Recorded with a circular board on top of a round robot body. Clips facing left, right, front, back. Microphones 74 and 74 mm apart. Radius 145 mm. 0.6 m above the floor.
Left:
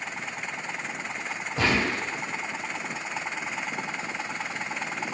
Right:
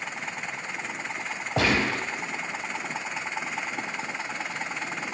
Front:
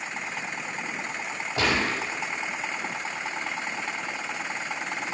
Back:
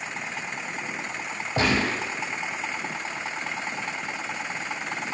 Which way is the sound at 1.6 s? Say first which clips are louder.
Right 1 dB, back 2 dB; 110° right.